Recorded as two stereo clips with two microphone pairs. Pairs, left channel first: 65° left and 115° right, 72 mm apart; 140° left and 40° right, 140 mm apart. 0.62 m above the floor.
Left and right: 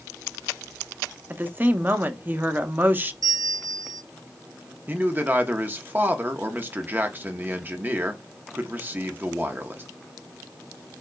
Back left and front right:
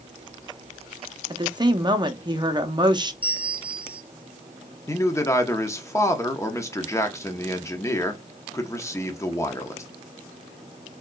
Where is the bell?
85° right, 0.8 m.